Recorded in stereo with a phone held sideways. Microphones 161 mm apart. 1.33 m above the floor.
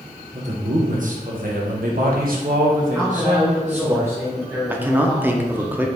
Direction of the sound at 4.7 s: 10° right (ahead or behind).